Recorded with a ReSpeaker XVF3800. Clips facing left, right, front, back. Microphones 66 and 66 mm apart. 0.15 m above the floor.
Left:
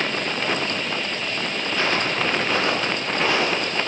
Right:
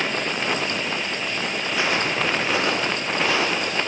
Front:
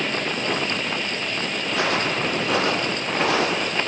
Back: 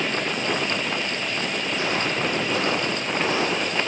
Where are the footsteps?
10° right, 7 m; by 3.8 s 5° right, 8.5 m.